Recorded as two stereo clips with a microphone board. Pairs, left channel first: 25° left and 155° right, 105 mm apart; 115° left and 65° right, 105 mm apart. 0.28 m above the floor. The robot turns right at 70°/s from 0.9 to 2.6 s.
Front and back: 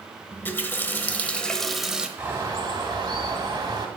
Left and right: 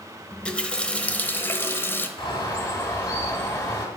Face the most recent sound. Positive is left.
turn(degrees=165)